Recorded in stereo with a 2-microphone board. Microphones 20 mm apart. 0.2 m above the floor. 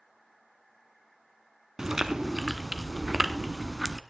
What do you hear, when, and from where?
1.8 s chewing: 25° right (ahead or behind), 0.9 m